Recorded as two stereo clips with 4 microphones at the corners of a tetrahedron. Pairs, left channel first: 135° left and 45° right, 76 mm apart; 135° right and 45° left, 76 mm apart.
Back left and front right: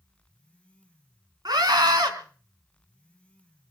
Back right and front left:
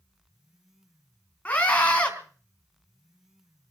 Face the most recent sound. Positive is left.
turn(degrees=-65)